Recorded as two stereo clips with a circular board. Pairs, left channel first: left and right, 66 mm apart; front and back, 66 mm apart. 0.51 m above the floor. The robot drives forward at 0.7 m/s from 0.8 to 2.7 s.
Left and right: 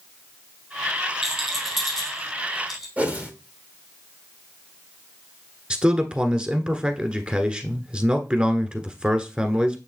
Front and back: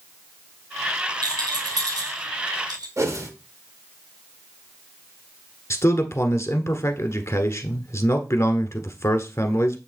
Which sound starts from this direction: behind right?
A whoosh, at 3.0 s.